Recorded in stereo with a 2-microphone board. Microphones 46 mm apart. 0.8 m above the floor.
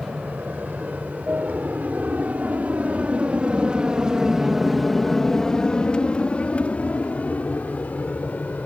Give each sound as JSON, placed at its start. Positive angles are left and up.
{"t": 0.0, "sound": "an aircraft", "side_deg": -40}